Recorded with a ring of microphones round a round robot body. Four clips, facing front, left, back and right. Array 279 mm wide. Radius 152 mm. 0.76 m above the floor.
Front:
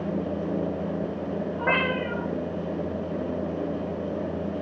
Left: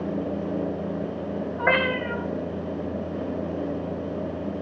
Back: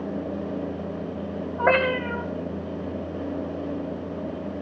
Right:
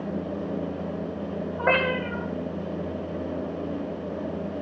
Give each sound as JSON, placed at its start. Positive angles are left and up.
{"t": 1.6, "sound": "a cat meowing", "azimuth_deg": 160, "distance_m": 3.0}